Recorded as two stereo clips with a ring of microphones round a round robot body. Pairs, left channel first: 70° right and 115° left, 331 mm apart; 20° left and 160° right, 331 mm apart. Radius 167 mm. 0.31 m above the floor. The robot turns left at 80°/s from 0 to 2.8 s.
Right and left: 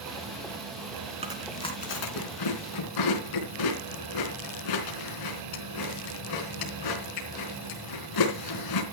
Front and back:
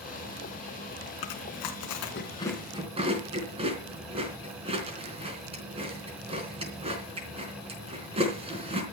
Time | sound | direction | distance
1.2 | chewing | 40° left | 4 m